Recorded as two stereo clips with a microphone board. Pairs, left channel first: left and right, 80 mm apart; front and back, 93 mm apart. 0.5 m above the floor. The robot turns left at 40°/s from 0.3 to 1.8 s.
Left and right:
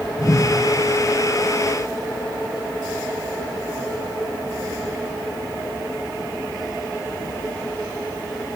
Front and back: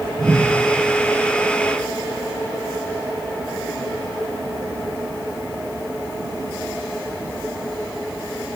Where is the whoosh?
130° left, 2 m; by 0.5 s 120° left, 2 m.